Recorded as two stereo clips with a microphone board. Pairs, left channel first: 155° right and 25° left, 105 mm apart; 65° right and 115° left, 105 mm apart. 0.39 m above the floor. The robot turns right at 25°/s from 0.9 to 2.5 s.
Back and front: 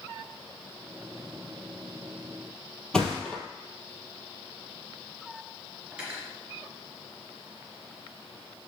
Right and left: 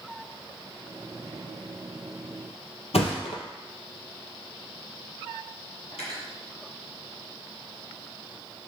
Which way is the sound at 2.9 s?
75° right.